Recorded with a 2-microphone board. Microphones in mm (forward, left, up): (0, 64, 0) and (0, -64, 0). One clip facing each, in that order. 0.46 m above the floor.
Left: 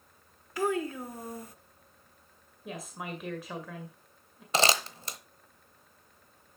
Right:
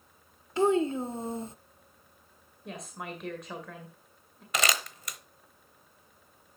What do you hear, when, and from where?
0.6 s a child speaking: 25° right (ahead or behind), 0.5 m
2.6 s a woman speaking: 5° left (ahead or behind), 2.0 m
4.5 s crumpling: 30° left (ahead or behind), 0.9 m